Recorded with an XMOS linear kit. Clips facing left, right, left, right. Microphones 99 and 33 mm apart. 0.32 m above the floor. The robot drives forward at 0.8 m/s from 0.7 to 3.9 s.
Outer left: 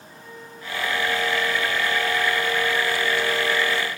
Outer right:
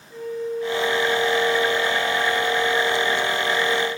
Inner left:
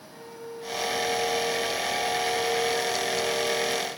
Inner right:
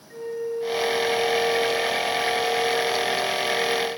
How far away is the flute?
About 1.4 m.